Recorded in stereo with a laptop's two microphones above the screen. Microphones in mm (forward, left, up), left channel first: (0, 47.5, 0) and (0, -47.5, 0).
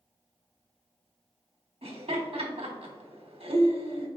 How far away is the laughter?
About 1.3 m.